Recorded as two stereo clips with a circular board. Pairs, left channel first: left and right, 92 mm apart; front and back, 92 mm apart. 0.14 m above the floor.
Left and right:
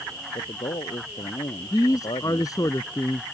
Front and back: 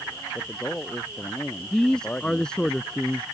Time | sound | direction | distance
0.3 | a man speaking | 75° left | ?
1.7 | a man speaking | 75° left | ?